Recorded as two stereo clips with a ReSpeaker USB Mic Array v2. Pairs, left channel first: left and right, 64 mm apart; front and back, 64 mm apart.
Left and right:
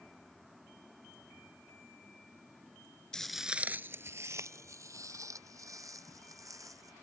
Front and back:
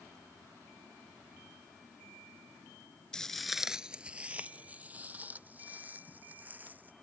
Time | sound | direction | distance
3.1 | footsteps | 45° left | ?